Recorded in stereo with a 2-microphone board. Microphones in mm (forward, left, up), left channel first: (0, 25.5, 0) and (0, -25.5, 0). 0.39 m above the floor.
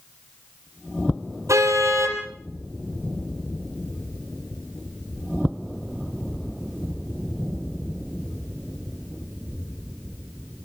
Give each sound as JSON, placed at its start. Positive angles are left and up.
{"t": 1.5, "sound": "a car horn", "side_deg": -75, "distance_m": 6.0}